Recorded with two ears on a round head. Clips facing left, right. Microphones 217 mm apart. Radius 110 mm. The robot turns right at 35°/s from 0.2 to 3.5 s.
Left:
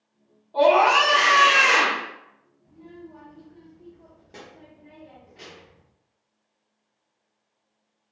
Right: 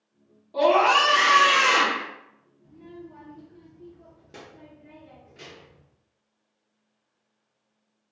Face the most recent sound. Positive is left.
turn(degrees=-10)  # may be behind; listen again after turning